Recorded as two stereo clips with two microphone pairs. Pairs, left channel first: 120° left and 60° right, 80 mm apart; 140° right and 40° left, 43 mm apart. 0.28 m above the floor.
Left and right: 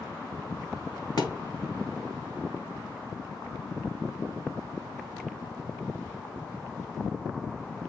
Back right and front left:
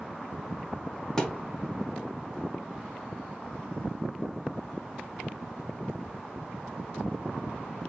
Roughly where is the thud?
Behind left.